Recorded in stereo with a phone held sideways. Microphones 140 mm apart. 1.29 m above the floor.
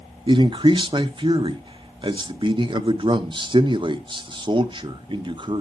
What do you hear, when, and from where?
0.3 s a man speaking: 35° right (ahead or behind), 0.8 m